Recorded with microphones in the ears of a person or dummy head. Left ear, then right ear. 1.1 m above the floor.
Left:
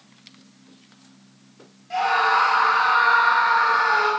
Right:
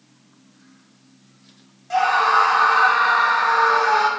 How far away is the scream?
About 2.5 m.